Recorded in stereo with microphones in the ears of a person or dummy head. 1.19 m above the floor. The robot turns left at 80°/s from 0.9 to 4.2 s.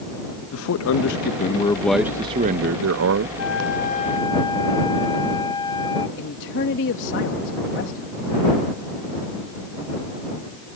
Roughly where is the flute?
Left.